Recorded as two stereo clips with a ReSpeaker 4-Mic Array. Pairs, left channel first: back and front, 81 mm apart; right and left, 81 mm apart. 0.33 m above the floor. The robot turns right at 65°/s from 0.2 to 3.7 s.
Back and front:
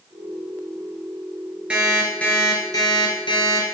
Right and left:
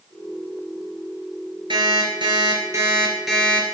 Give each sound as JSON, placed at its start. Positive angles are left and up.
{"t": 1.7, "sound": "an alarm clock", "azimuth_deg": 75, "distance_m": 3.0}